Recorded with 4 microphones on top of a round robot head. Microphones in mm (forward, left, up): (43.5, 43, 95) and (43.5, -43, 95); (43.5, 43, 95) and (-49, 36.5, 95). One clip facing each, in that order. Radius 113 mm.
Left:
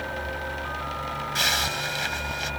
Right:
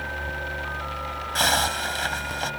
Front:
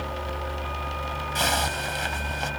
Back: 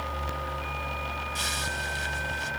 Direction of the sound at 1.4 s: 40° right.